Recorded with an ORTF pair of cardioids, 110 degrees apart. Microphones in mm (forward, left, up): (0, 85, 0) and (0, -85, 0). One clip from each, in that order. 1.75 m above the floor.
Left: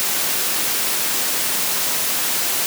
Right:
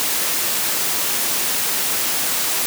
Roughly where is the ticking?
I don't hear ticking.